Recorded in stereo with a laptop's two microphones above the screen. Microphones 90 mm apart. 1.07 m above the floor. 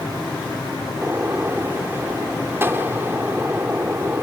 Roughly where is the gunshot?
Right.